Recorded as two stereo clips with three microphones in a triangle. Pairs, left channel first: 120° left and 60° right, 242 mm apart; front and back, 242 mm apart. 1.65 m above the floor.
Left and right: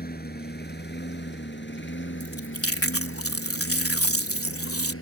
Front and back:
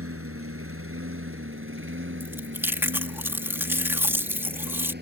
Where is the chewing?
100° left.